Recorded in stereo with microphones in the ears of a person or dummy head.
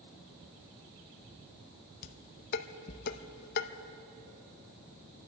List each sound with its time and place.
2.0 s dishes clattering: 55° left (ahead or behind), 0.9 m